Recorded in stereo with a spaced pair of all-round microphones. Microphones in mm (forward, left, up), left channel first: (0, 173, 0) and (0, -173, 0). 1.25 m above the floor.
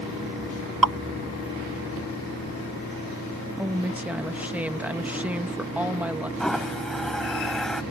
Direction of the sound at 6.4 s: Centre (ahead or behind).